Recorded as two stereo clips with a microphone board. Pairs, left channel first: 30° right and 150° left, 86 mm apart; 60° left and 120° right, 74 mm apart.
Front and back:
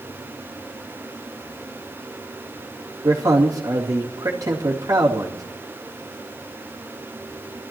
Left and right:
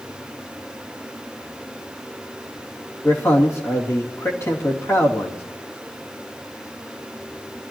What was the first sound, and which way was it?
A man speaking, 105° left.